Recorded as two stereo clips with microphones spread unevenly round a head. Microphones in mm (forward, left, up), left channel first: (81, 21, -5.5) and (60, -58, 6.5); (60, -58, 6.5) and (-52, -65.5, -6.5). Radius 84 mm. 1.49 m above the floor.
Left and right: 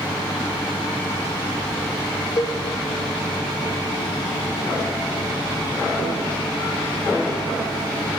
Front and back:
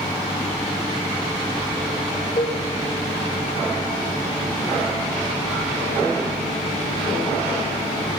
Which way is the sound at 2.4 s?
30° left.